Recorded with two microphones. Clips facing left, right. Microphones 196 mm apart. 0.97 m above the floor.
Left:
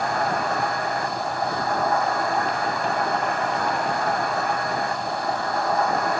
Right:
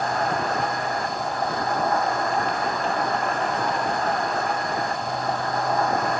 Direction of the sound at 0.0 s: 10° left (ahead or behind).